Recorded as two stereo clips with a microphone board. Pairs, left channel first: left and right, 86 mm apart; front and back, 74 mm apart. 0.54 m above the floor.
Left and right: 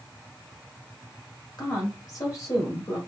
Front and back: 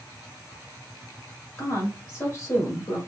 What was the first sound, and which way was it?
A woman speaking, 45° left.